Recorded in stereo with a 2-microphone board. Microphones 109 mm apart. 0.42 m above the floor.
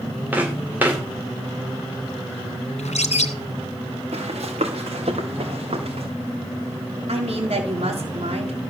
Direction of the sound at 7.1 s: 75° right (ahead or behind).